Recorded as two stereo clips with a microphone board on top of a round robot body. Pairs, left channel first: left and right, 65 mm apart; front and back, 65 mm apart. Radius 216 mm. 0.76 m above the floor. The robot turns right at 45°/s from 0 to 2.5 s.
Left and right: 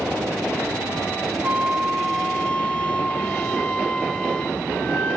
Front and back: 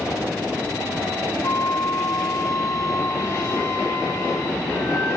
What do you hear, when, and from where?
1.4 s a flute: 30° right, 0.7 m; by 5.2 s 20° left, 0.7 m